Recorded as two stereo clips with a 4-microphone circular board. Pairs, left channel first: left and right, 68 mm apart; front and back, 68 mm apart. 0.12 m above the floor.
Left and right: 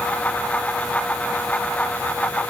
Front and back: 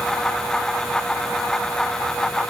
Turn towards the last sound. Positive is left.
No sound to turn to.